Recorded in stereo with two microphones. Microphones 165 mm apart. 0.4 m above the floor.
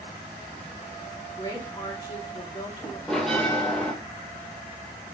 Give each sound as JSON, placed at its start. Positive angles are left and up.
{"t": 1.4, "sound": "a woman speaking", "side_deg": 25, "distance_m": 4.0}
{"t": 3.1, "sound": "a bell", "side_deg": 5, "distance_m": 4.0}